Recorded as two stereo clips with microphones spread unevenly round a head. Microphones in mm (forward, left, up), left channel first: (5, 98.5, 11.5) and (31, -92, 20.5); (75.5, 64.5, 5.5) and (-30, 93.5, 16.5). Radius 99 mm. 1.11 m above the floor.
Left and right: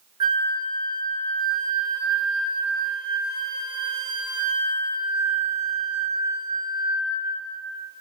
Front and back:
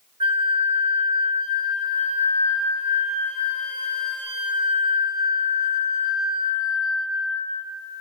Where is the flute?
145° right, 0.9 m.